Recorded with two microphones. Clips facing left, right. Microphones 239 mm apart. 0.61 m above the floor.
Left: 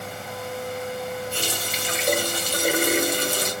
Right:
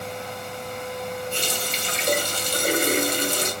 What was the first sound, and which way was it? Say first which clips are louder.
A running tap: right 1 dB; 5° left (ahead or behind).